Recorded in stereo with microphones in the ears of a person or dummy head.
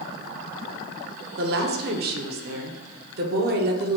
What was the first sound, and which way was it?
A woman speaking, 45° right (ahead or behind).